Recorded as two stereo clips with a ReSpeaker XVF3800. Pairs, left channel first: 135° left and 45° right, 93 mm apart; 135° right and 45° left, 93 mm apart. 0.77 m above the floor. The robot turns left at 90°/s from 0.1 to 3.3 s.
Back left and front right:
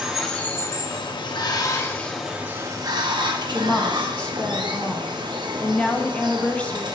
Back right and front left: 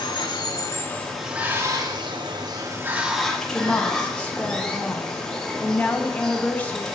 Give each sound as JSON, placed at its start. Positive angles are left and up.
{"t": 0.0, "sound": "running water", "azimuth_deg": -125, "distance_m": 0.9}
{"t": 3.5, "sound": "a woman speaking", "azimuth_deg": -175, "distance_m": 0.8}